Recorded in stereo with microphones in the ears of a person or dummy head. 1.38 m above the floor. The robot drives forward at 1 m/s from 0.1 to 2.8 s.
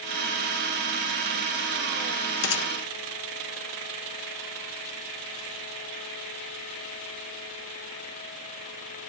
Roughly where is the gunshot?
Left.